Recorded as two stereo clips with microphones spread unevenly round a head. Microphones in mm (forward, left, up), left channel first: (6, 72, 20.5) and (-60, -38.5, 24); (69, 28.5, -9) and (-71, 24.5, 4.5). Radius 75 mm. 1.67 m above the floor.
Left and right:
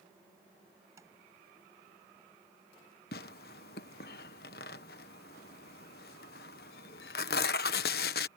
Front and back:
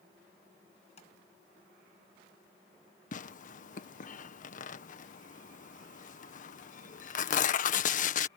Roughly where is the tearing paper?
Ahead left.